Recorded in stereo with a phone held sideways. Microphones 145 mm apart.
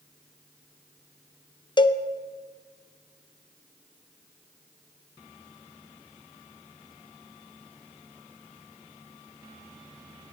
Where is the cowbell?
30° left (ahead or behind), 0.6 m.